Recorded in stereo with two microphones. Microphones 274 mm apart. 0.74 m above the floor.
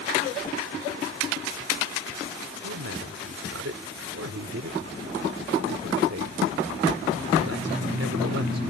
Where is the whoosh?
25° left (ahead or behind).